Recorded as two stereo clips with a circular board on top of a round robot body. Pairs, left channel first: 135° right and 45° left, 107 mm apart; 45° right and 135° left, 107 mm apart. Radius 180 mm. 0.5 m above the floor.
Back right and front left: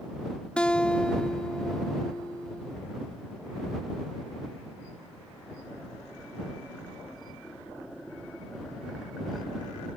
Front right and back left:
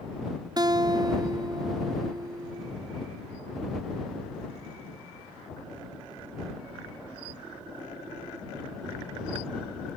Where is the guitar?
150° left.